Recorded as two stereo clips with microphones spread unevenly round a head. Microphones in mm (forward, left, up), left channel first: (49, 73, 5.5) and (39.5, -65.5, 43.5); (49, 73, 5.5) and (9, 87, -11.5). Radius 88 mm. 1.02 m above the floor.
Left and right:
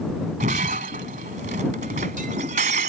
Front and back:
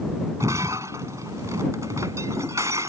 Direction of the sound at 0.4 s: 145° right.